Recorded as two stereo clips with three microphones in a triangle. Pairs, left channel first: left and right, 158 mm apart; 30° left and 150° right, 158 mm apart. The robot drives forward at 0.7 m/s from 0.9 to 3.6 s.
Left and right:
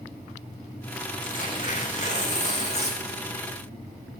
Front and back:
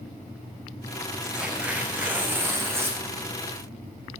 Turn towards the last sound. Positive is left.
turn(degrees=140)